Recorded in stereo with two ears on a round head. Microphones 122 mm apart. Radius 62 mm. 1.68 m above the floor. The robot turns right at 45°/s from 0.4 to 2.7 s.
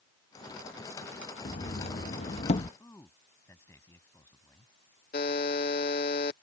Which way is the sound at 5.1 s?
70° left (ahead or behind).